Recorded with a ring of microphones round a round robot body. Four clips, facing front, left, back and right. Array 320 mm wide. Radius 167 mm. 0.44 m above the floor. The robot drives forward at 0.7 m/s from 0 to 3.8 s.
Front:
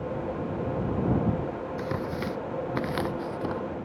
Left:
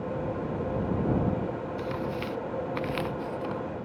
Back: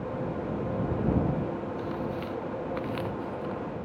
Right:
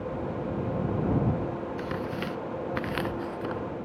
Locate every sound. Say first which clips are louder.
1.8 s tearing paper: even, front 2 dB; 15° right; by 3.6 s 20° right